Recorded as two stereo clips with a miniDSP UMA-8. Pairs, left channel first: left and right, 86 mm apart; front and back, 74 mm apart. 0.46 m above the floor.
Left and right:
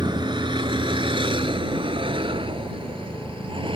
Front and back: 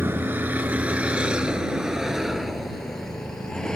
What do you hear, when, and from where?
0.0 s a vehicle: 120° right; by 3.8 s 80° right